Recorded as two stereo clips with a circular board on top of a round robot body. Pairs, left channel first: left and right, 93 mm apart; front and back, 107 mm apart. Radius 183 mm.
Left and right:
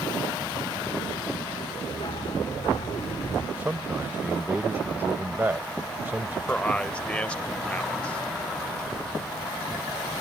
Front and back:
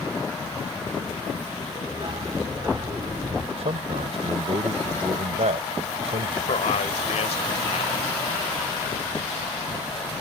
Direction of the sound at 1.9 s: 130° left.